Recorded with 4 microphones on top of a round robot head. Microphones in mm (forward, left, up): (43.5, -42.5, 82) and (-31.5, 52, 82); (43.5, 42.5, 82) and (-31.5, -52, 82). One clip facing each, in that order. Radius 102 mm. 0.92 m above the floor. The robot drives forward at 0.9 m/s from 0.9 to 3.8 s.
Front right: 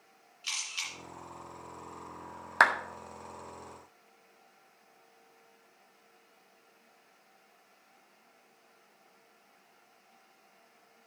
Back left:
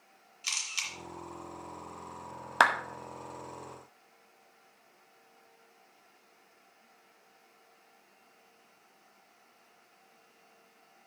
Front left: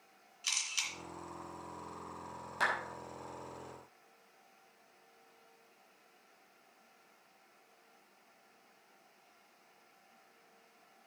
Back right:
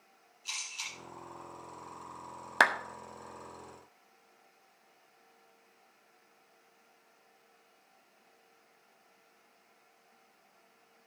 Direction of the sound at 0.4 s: 75° left.